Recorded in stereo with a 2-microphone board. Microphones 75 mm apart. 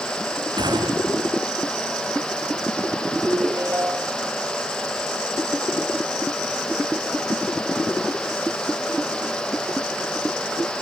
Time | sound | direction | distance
0.6 | a gunshot | 70° right (ahead or behind) | ?
3.3 | a ringtone | 30° right (ahead or behind) | ?